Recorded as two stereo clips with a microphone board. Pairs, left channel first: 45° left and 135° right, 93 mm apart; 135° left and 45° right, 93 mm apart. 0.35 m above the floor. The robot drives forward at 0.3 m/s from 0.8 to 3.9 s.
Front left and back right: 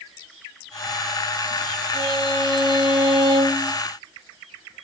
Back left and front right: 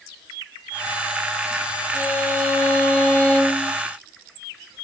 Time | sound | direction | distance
1.9 | a violin | 150° right | 6.5 m